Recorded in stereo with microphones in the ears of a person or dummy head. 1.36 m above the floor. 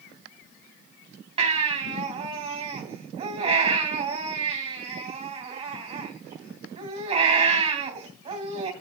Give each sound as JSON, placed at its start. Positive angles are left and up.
{"t": 1.4, "sound": "a baby crying", "side_deg": -30, "distance_m": 3.0}